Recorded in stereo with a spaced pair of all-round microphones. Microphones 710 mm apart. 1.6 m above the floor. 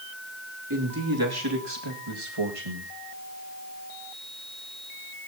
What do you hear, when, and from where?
0.7 s a man speaking: 25° right (ahead or behind), 3 m; by 2.9 s 50° right (ahead or behind), 2.0 m